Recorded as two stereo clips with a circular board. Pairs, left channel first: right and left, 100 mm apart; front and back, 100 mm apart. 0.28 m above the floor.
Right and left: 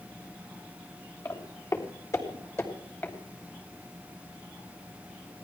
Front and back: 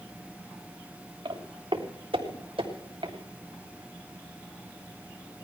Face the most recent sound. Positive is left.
turn(degrees=-155)